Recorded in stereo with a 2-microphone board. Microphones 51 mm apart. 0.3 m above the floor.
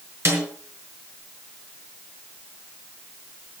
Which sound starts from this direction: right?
A snare drum, at 0.2 s.